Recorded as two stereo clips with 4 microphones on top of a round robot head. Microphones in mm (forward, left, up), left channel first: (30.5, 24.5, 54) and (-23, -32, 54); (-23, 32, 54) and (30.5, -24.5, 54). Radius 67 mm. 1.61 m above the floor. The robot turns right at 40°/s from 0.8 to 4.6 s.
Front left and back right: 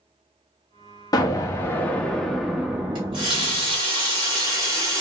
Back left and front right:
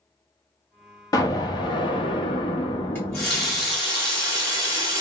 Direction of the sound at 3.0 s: 160° right.